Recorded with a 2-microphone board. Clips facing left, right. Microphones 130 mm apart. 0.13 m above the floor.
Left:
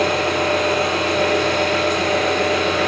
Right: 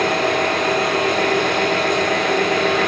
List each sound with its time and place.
0.0 s an engine running: 50° right (ahead or behind), 5.5 m